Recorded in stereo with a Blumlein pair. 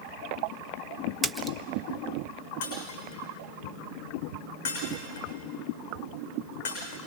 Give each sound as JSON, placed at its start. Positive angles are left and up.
{"t": 1.2, "sound": "a splash", "azimuth_deg": -10, "distance_m": 0.8}
{"t": 2.6, "sound": "breaking glass", "azimuth_deg": 55, "distance_m": 8.0}